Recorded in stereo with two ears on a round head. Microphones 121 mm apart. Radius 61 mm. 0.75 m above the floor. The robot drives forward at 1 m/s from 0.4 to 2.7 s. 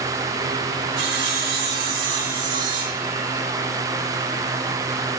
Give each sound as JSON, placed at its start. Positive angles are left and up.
{"t": 1.0, "sound": "sawing", "side_deg": -85, "distance_m": 3.5}